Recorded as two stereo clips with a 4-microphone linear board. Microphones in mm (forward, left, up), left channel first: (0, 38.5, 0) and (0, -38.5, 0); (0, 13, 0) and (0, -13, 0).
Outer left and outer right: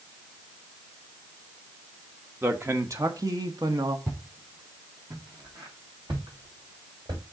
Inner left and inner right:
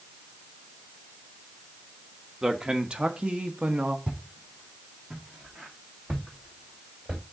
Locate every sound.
2.4 s a man speaking: 30° right (ahead or behind), 1.1 m; by 4.0 s 65° right (ahead or behind), 1.3 m
4.1 s footsteps: 45° right (ahead or behind), 2.5 m; by 7.2 s 75° right (ahead or behind), 4.5 m